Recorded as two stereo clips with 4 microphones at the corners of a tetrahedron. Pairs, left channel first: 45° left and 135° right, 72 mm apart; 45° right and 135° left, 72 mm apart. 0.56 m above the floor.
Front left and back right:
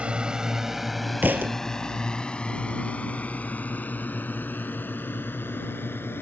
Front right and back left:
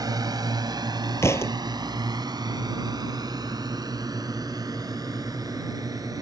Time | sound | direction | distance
0.0 | a drone | 150° left | ?
1.2 | a thud | 80° right | ?